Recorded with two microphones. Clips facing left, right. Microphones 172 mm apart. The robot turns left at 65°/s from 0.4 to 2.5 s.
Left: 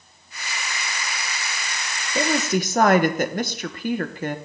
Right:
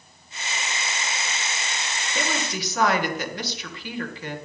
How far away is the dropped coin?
I don't hear a dropped coin.